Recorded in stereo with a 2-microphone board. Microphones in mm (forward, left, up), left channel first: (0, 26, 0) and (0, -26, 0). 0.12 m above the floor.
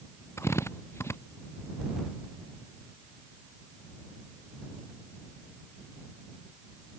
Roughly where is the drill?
Left.